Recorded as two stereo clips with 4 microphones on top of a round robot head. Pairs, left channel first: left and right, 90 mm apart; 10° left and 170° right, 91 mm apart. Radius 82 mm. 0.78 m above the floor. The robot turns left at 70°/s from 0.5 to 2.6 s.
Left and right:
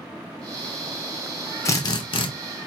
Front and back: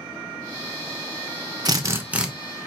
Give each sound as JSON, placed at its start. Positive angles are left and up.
{"t": 1.6, "sound": "a drill", "azimuth_deg": 150, "distance_m": 0.7}